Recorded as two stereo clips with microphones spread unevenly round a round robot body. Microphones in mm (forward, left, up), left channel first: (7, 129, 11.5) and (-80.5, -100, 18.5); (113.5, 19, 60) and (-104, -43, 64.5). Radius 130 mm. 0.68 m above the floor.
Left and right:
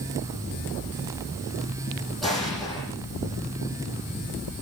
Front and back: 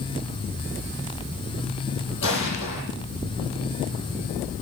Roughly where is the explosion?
Ahead.